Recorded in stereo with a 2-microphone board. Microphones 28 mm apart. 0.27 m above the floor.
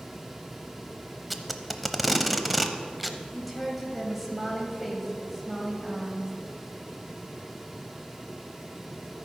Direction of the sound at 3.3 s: Centre (ahead or behind).